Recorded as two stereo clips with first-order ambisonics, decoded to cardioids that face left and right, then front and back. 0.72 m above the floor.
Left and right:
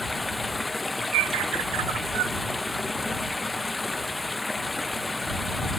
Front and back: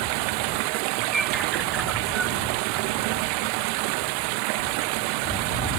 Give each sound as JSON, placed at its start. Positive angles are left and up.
{"t": 0.0, "sound": "running water", "azimuth_deg": 170}
{"t": 1.1, "sound": "a bird", "azimuth_deg": -100}